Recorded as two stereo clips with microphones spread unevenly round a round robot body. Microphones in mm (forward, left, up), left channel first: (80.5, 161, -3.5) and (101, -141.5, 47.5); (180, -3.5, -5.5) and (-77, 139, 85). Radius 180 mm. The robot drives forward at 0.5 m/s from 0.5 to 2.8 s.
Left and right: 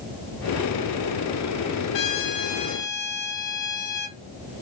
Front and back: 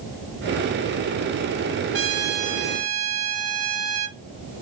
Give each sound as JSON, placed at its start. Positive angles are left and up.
{"t": 1.9, "sound": "a trumpet", "azimuth_deg": 90, "distance_m": 0.6}